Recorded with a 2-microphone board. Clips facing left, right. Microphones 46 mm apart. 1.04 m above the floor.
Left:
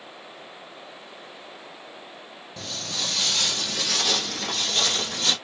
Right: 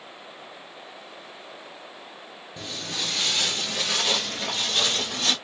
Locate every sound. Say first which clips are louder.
2.6 s footsteps: even; 20° right (ahead or behind), 1.0 m; by 5.3 s 25° right (ahead or behind), 1.8 m